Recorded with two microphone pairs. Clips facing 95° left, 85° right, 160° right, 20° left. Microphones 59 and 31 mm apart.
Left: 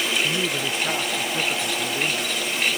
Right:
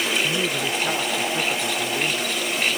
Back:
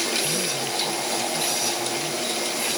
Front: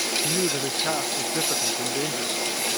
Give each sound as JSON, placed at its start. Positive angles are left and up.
{"t": 0.2, "sound": "a man speaking", "azimuth_deg": 5}